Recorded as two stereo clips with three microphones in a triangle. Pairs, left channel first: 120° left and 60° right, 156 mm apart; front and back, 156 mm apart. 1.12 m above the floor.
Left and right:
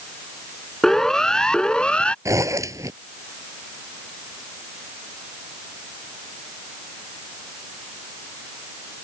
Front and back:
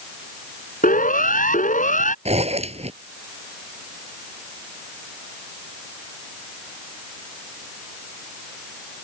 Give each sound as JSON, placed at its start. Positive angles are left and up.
{"t": 0.8, "sound": "a siren", "azimuth_deg": 35}
{"t": 2.2, "sound": "a zipper", "azimuth_deg": -130}